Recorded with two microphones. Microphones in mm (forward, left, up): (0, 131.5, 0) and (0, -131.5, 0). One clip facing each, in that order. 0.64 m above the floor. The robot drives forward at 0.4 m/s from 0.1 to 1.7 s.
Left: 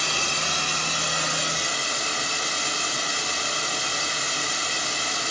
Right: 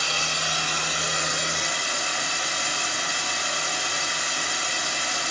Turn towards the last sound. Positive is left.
turn(degrees=35)  # may be behind; listen again after turning